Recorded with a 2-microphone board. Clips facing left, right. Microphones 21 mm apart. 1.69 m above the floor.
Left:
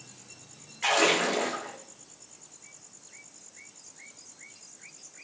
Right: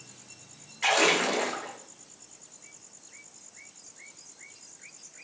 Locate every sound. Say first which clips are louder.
0.8 s a splash: right 1 dB; 10° right (ahead or behind), 1.1 m